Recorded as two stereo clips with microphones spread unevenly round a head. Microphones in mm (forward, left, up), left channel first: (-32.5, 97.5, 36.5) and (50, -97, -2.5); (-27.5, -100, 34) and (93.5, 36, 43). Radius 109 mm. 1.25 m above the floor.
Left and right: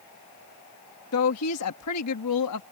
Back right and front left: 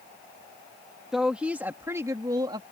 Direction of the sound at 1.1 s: 135° left.